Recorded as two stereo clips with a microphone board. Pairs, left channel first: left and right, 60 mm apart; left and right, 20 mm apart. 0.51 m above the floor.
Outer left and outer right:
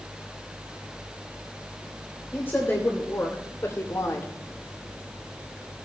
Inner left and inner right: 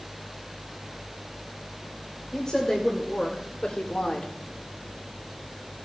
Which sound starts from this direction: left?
A woman speaking, at 2.3 s.